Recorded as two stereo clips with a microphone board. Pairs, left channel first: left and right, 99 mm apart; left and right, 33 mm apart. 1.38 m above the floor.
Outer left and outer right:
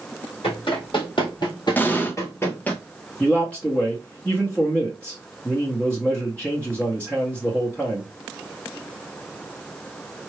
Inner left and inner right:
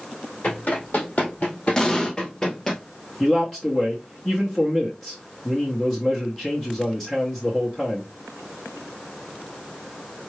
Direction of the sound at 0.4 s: 55° left (ahead or behind).